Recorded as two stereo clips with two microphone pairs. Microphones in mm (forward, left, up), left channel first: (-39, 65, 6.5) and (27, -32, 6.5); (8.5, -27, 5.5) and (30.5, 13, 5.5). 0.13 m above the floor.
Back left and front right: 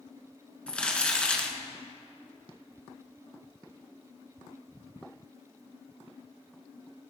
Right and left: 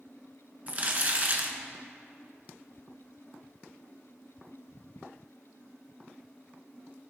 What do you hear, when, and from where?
0.7 s crumpling: 50° left, 1.5 m